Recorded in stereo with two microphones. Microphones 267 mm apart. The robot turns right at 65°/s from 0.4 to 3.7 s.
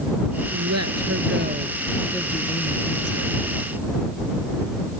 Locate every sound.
0.5 s a woman speaking: 100° right; by 3.4 s 85° left